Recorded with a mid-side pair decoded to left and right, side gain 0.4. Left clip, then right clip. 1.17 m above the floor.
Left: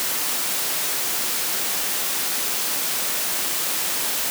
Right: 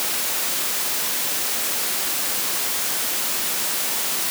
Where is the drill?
No drill in this recording.